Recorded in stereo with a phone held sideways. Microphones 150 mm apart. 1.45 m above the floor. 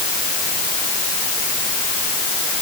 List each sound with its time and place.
Only background noise.